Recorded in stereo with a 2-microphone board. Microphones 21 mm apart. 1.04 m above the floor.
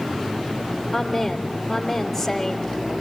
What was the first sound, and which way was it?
A woman speaking, centre (ahead or behind).